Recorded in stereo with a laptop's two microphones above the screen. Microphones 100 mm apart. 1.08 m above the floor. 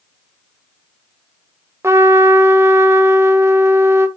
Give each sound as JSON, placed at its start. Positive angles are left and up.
{"t": 1.8, "sound": "a trumpet", "side_deg": -25, "distance_m": 0.8}